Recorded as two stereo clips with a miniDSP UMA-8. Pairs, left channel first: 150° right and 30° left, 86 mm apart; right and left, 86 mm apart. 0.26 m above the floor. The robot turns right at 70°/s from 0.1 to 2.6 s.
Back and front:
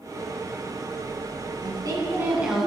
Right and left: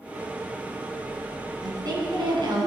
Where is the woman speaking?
50° left, 2.5 m; by 2.7 s 115° left, 2.5 m.